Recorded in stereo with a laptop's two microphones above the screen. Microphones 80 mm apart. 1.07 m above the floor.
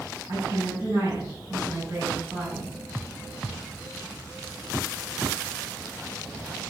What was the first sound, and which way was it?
A woman speaking, 45° right (ahead or behind).